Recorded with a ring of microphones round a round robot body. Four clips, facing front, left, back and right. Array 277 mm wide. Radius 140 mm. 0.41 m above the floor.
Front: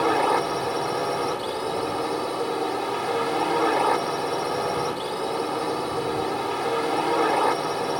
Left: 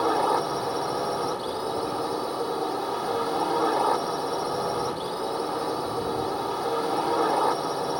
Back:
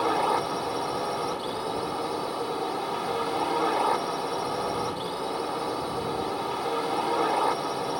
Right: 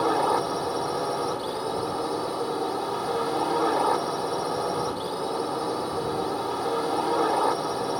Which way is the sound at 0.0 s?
5° right.